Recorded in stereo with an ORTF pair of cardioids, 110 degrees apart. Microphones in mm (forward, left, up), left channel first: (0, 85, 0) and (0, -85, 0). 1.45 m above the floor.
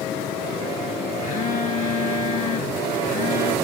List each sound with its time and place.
1.2 s a phone buzzing: 50° left, 1.0 m